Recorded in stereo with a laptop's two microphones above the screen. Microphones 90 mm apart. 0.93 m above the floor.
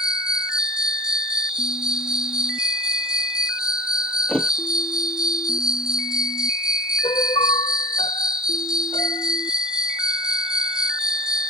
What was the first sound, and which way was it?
An insect, 10° right (ahead or behind).